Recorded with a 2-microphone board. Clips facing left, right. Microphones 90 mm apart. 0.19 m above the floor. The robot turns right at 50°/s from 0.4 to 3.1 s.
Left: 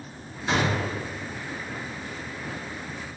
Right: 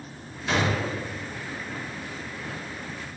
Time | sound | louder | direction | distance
0.5 | a gunshot | even | 25° left (ahead or behind) | 1.8 m